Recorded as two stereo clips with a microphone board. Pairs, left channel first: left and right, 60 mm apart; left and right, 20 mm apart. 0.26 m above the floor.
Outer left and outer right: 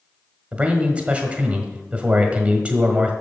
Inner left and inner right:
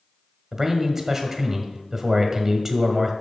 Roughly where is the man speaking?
Right.